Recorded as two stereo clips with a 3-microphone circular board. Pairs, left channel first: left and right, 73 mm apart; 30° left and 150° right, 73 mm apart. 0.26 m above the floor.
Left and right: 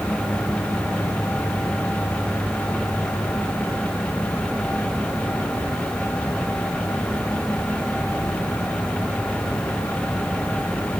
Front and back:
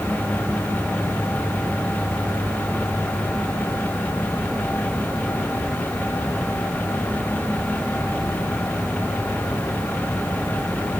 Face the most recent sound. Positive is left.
No sound to turn to.